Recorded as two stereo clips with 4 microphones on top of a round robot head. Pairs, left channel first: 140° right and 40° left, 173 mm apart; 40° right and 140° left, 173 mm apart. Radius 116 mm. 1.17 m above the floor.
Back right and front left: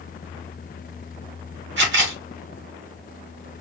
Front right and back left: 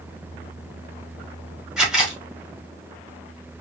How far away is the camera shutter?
About 1.1 m.